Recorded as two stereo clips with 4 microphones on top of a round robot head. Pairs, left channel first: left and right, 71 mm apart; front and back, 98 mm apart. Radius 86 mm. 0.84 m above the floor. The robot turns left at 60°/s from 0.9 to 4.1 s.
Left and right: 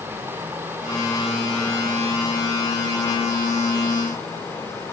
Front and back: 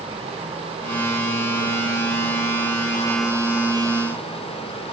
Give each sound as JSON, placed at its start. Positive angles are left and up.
{"t": 0.0, "sound": "running water", "azimuth_deg": -150, "distance_m": 7.0}